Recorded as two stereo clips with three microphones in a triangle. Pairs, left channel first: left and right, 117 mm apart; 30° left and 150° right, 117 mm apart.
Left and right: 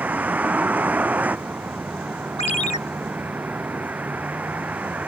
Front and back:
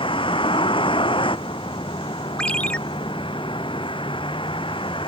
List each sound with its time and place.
0.0 s a vehicle: 15° right
2.4 s a ringtone: 110° left